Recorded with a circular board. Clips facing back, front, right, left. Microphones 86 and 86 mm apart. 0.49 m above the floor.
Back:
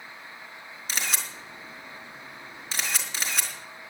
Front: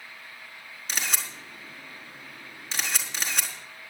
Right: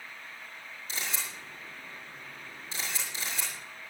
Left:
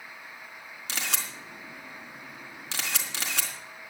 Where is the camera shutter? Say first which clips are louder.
Even, left 3 dB; 90° left, 4 m.